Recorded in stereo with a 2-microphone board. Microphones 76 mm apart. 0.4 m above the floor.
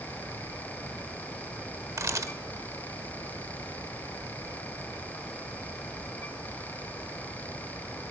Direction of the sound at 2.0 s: 45° right (ahead or behind).